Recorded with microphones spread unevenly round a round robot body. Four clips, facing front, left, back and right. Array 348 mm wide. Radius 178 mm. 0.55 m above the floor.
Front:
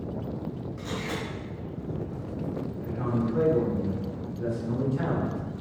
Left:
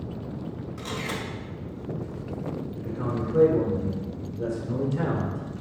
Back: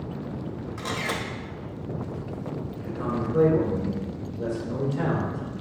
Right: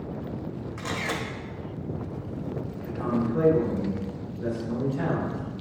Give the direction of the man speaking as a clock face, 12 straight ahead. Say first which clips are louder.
Right 5 dB, even; 8 o'clock.